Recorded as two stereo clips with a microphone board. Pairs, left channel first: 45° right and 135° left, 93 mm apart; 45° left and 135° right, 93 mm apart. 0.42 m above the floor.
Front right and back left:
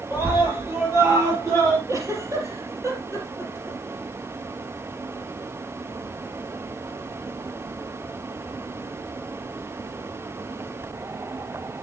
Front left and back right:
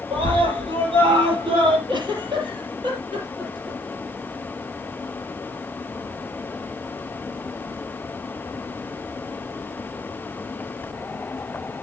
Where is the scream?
160° right, 9.5 m; by 1.8 s 170° right, 11 m.